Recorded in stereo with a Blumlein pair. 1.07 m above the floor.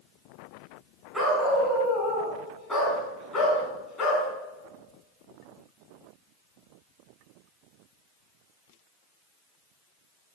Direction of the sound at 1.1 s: 5° right.